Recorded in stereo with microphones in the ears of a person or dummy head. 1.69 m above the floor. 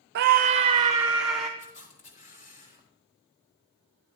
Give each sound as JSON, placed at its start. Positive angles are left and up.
{"t": 0.1, "sound": "a scream", "side_deg": -55, "distance_m": 0.6}
{"t": 1.6, "sound": "a camera shutter", "side_deg": 40, "distance_m": 4.0}